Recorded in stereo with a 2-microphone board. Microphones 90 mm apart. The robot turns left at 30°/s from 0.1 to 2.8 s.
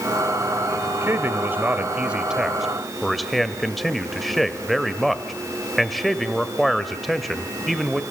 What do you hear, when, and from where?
1.0 s a man speaking: 130° right, 1.8 m; by 8.0 s straight behind, 1.8 m